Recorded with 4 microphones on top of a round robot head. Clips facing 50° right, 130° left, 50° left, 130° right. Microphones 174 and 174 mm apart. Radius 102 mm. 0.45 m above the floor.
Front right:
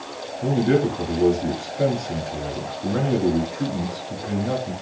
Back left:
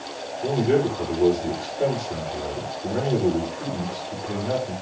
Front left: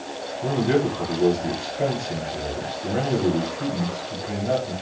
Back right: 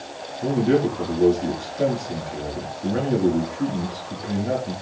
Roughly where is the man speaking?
Right.